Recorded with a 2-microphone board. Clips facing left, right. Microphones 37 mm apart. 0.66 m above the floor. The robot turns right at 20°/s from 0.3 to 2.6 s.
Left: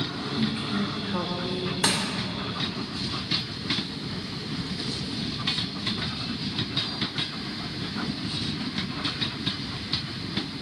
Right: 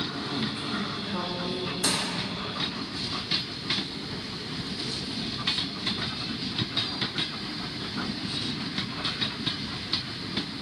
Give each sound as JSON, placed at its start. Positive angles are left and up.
{"t": 0.4, "sound": "a woman speaking", "side_deg": 20, "distance_m": 0.6}
{"t": 1.8, "sound": "crushing", "side_deg": 65, "distance_m": 2.0}